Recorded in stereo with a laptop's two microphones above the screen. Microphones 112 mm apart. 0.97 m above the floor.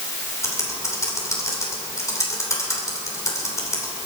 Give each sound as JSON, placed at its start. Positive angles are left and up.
{"t": 0.4, "sound": "typing on a keyboard", "side_deg": 25, "distance_m": 3.0}